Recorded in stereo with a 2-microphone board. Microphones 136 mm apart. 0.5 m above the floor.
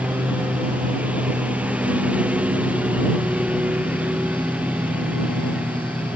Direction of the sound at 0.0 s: 10° right (ahead or behind).